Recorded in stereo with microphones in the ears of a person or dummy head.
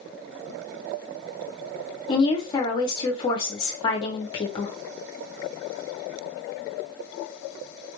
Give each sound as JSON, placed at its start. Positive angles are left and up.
{"t": 2.1, "sound": "a woman speaking", "side_deg": 30, "distance_m": 0.9}